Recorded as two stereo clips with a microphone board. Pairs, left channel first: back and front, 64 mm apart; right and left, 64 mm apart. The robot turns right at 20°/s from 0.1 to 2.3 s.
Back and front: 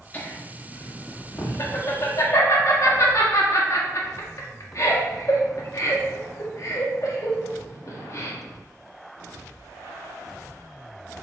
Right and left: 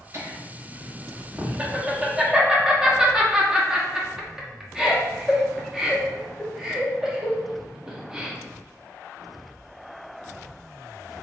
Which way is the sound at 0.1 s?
125° left.